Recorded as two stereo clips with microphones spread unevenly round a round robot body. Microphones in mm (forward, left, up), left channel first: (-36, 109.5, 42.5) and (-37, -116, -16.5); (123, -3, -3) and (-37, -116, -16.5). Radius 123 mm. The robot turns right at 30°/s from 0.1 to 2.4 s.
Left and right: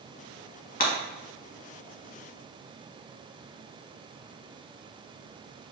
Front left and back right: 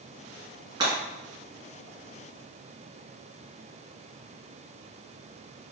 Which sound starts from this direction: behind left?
Breaking glass, at 0.8 s.